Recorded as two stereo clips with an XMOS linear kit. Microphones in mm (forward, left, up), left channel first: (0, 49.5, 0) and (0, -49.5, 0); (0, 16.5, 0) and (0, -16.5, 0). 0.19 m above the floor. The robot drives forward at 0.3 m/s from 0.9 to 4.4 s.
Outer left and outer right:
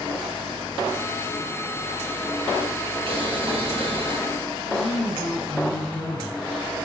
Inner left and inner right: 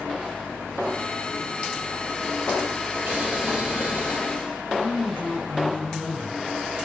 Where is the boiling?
60° right (ahead or behind), 2.5 m; by 4.2 s 55° right (ahead or behind), 2.5 m.